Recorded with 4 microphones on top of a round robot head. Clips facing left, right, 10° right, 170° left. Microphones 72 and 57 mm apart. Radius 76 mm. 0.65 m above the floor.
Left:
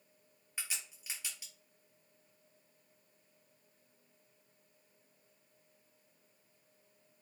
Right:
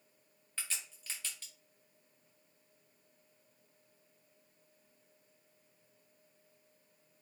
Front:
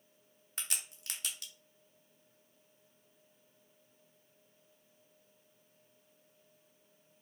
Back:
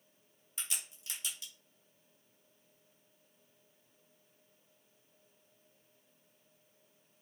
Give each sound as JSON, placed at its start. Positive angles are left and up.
{"t": 0.6, "sound": "a crack", "azimuth_deg": 10, "distance_m": 0.9}